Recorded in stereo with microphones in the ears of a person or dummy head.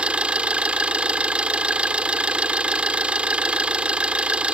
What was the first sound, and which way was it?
An engine running, 10° right (ahead or behind).